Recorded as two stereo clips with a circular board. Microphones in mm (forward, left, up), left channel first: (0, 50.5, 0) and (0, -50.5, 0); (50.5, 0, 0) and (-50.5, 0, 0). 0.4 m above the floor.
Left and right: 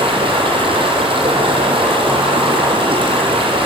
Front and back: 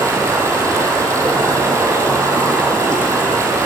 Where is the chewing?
No chewing in this recording.